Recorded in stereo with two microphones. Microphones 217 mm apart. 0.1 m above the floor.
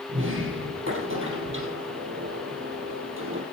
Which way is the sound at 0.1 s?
70° right (ahead or behind).